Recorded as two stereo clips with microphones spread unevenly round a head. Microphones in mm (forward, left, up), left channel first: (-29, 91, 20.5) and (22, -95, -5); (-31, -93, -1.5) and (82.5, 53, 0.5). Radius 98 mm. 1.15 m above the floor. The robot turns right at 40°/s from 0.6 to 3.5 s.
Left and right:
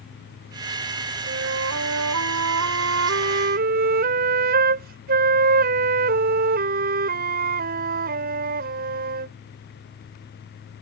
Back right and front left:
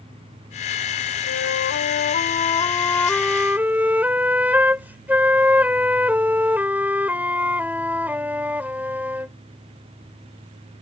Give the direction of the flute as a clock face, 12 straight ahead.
4 o'clock.